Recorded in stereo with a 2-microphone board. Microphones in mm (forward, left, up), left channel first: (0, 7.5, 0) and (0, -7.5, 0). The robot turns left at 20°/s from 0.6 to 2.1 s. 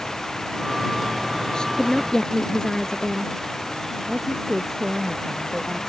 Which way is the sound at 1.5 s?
55° left (ahead or behind).